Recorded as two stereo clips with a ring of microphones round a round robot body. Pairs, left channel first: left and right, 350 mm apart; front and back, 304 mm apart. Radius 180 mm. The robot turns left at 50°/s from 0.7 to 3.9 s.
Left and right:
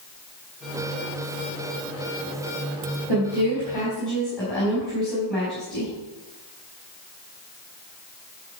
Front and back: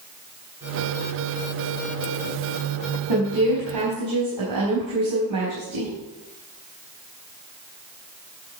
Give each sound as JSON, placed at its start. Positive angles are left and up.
{"t": 3.1, "sound": "a woman speaking", "azimuth_deg": -140, "distance_m": 4.0}